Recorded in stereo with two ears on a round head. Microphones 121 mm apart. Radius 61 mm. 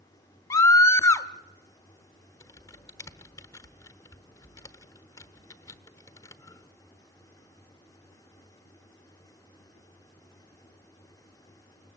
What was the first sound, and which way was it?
A scream, 25° left (ahead or behind).